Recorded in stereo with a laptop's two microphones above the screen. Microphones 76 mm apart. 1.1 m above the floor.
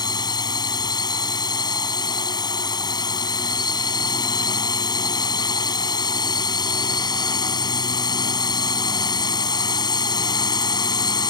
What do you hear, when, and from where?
0.0 s a drone: 65° left (ahead or behind)